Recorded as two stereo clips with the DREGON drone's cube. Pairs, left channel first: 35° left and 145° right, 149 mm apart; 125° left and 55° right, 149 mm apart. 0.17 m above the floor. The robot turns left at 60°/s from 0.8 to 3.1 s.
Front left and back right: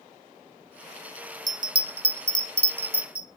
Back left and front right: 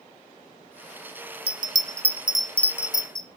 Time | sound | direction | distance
1.5 | a bell | 90° right | 0.9 m